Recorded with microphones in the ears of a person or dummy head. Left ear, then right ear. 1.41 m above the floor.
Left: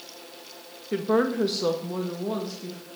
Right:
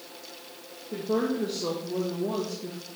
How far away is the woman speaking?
About 0.6 m.